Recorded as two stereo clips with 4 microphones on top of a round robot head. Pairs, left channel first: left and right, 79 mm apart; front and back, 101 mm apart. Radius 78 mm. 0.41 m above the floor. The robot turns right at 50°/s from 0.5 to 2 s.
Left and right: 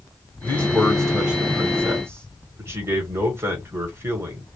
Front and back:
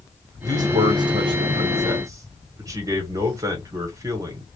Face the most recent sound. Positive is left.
turn(degrees=-135)